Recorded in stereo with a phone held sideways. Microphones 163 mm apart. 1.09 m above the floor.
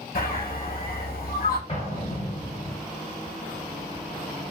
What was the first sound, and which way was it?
A bird, 65° left (ahead or behind).